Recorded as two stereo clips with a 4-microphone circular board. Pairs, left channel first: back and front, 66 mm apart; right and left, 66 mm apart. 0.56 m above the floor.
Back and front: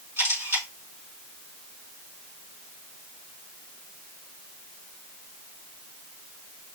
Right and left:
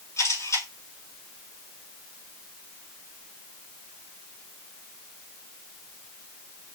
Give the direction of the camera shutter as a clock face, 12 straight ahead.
2 o'clock.